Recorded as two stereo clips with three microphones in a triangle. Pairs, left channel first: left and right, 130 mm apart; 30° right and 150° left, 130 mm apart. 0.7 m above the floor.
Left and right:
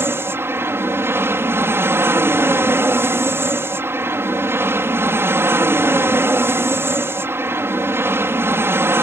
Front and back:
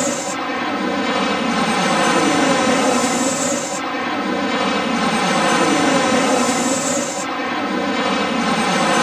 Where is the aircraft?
115° right.